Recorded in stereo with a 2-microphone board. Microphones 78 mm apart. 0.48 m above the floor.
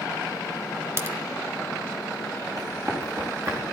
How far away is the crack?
About 1.0 m.